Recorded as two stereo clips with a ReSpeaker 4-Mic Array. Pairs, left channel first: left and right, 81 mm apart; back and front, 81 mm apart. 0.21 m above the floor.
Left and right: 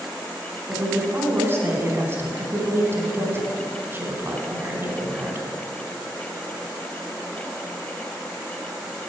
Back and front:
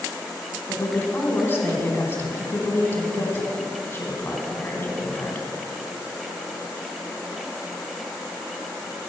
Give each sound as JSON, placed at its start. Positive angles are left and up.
{"t": 0.7, "sound": "a woman speaking", "azimuth_deg": -130, "distance_m": 1.5}